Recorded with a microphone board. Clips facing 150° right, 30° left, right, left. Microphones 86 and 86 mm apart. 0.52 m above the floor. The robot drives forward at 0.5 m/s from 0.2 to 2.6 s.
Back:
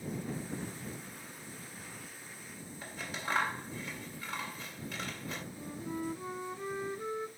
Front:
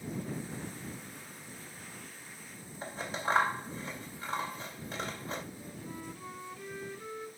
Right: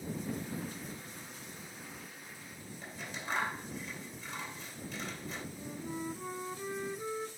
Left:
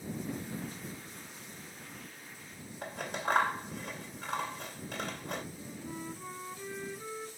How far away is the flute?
About 0.6 m.